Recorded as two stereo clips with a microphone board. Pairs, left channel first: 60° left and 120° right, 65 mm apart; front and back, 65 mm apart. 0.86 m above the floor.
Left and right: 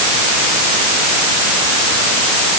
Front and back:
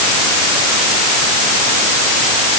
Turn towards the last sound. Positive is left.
No sound to turn to.